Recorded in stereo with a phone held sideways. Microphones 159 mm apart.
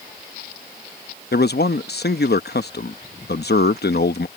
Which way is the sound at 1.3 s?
75° left (ahead or behind).